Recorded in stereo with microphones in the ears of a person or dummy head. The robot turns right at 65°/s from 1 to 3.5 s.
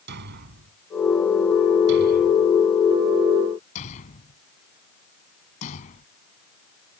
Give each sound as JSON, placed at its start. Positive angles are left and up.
{"t": 0.1, "sound": "a thud", "side_deg": -60}